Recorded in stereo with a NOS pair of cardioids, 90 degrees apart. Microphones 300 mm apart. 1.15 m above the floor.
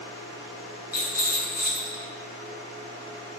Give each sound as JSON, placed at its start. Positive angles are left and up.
{"t": 0.9, "sound": "a rattle", "azimuth_deg": 30, "distance_m": 0.9}